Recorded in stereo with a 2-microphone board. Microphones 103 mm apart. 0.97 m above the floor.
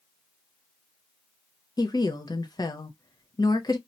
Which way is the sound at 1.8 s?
40° left (ahead or behind).